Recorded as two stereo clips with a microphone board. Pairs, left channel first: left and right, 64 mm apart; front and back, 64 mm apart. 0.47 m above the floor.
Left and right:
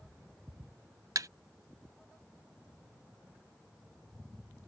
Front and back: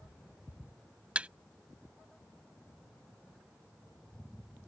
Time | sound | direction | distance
1.1 | a thud | 110° right | ?